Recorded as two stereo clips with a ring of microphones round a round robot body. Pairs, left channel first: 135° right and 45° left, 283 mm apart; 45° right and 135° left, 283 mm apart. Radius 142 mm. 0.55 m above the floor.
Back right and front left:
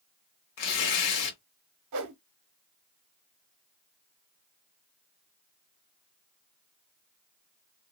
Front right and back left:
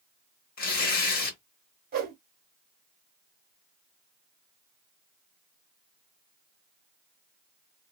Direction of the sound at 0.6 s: 105° right.